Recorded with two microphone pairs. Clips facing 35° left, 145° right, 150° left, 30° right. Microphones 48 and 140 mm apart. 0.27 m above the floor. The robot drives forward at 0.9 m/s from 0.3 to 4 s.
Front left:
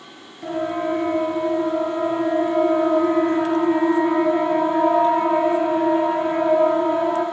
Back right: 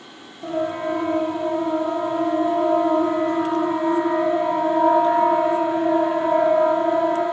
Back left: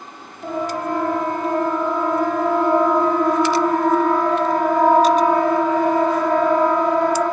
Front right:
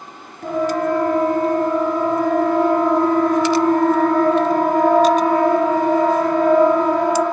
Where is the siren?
5° right, 7 m; by 7.2 s 10° right, 10 m.